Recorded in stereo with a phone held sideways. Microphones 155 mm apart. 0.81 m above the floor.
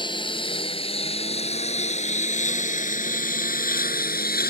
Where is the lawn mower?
30° left (ahead or behind); by 4.5 s 70° left (ahead or behind).